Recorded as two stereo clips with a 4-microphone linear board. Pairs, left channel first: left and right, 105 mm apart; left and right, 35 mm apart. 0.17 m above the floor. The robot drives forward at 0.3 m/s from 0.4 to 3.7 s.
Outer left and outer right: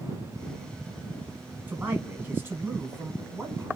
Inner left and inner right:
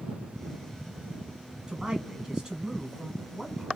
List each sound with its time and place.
1.7 s a man speaking: 20° right (ahead or behind), 1.3 m